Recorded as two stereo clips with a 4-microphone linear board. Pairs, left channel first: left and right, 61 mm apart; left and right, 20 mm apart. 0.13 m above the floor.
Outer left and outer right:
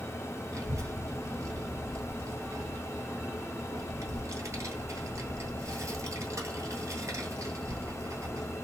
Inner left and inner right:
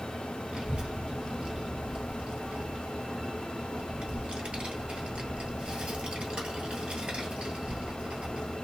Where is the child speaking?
60° right (ahead or behind), 1.4 m.